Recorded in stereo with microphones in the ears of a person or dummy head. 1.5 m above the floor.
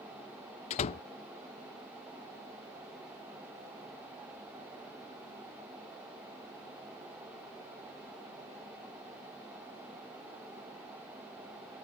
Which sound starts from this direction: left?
A door slam, at 0.7 s.